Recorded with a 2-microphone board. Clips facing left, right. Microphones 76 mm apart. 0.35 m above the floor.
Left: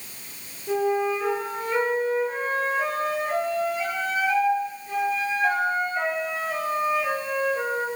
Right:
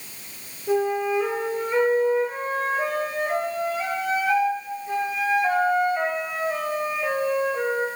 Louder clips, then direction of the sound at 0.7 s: Right 1 dB; 10° right (ahead or behind).